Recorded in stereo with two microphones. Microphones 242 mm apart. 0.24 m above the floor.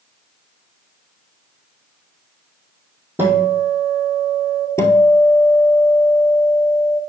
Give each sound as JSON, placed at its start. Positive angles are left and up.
{"t": 3.2, "sound": "a guitar", "side_deg": -10, "distance_m": 1.9}
{"t": 4.8, "sound": "a guitar", "side_deg": 10, "distance_m": 0.9}